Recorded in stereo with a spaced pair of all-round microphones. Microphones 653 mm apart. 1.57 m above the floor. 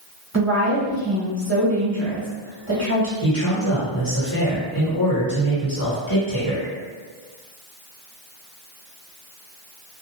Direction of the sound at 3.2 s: 30° left (ahead or behind).